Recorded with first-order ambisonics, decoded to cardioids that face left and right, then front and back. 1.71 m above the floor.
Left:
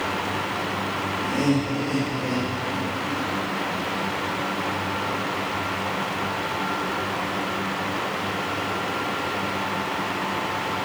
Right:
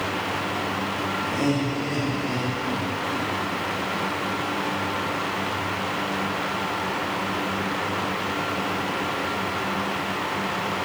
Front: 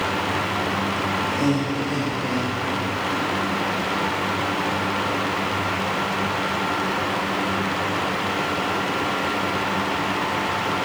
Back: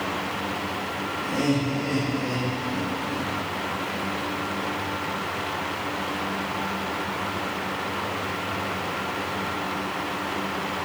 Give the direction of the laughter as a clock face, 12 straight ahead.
8 o'clock.